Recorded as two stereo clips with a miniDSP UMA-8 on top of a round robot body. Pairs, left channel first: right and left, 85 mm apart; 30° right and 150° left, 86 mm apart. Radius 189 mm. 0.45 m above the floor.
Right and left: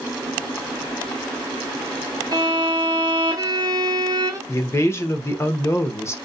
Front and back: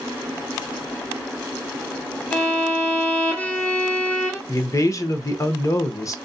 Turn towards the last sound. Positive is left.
turn(degrees=-50)